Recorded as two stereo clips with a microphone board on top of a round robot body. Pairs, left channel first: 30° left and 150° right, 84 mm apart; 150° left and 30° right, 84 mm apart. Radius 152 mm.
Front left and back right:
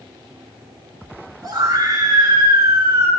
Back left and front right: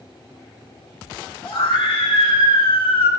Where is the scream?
165° left, 7 m; by 3.1 s 150° left, 7.5 m.